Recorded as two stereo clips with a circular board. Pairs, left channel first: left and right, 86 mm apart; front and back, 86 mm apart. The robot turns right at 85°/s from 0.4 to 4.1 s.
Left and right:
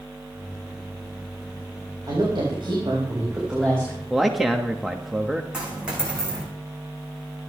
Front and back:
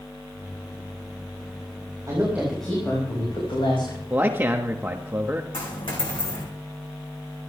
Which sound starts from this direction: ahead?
A dropped coin, at 5.5 s.